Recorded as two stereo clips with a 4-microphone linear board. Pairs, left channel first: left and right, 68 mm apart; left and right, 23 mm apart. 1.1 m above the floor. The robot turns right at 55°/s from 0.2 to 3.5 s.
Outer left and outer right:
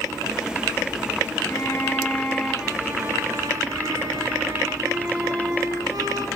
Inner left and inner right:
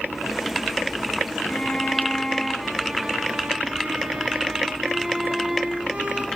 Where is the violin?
130° left, 5 m; by 6.3 s 115° right, 5 m.